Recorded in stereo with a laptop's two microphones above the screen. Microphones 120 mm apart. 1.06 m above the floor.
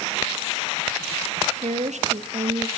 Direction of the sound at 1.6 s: 75° right (ahead or behind).